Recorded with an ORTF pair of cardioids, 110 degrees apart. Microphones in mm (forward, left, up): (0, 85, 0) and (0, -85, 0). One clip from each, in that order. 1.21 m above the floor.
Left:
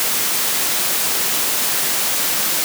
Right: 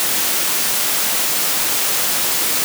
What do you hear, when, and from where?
Only background noise.